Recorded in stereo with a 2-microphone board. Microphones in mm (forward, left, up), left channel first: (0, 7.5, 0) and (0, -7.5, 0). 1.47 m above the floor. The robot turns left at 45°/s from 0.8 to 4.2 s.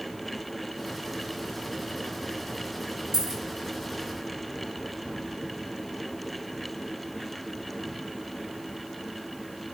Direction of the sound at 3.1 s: 45° right (ahead or behind).